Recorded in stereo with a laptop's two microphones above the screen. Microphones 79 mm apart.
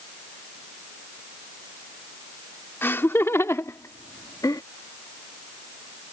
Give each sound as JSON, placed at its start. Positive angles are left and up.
{"t": 2.8, "sound": "laughter", "side_deg": 30}